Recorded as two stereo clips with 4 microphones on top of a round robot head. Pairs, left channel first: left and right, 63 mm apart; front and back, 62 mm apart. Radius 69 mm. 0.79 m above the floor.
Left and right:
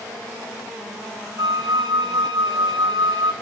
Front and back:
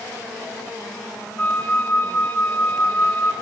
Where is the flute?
75° right, 0.6 m.